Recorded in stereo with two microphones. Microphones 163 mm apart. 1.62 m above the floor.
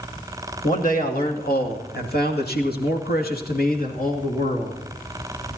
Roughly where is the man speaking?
Left.